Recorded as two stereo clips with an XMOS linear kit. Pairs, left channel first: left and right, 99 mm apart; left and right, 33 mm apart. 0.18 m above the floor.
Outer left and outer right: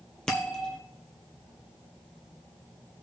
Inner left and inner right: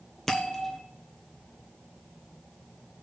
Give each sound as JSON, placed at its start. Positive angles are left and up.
{"t": 0.3, "sound": "a bell", "side_deg": 10, "distance_m": 1.7}